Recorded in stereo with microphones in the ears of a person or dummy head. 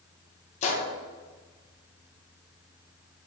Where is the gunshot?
40° left (ahead or behind), 1.1 m.